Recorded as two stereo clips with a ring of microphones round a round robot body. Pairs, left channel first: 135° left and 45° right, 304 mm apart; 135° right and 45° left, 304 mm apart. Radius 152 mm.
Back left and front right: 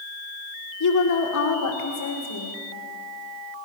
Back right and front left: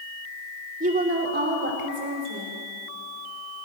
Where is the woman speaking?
110° left, 1.7 m; by 2.6 s 95° left, 3 m.